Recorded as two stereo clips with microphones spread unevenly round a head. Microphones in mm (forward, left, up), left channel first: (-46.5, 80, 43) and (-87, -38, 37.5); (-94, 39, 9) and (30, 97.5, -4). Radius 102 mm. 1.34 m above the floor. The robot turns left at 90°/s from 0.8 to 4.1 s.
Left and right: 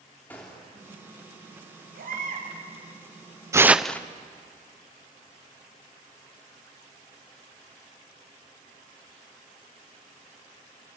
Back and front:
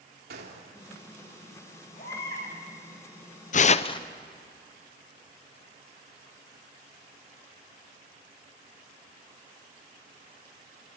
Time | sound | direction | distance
0.3 | a gunshot | 10° right | 3 m
2.0 | a baby crying | 95° right | 7 m
3.5 | tearing paper | 170° right | 0.8 m